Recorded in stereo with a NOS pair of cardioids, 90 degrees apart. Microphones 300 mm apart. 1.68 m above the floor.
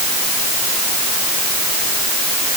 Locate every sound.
Only background noise.